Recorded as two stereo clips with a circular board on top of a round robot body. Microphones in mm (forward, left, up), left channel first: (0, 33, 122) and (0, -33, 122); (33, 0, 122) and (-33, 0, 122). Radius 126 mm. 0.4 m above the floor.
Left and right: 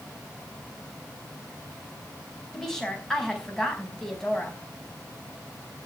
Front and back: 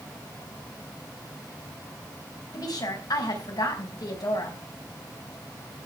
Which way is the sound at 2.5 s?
5° left.